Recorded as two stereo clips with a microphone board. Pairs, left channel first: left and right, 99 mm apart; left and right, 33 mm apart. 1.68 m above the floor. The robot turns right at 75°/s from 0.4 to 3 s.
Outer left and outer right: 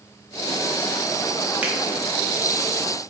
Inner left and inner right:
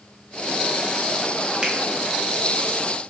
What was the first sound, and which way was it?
A finger snap, 15° right (ahead or behind).